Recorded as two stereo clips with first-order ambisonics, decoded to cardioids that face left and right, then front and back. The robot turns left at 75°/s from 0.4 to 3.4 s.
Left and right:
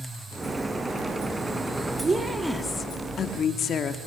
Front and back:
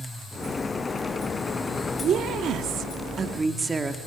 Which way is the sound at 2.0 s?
145° right.